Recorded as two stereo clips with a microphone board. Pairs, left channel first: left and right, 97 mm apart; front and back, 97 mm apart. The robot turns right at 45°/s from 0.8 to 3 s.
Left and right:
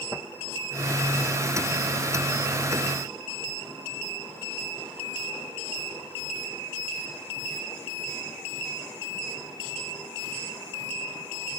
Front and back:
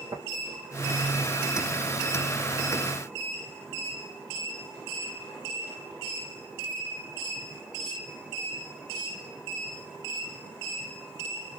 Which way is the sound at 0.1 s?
140° right.